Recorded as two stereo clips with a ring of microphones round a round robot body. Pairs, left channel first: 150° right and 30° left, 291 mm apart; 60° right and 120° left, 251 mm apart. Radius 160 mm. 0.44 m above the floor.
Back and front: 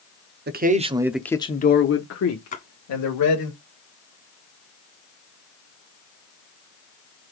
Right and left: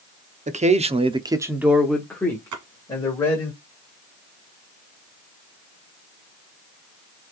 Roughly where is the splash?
Behind left.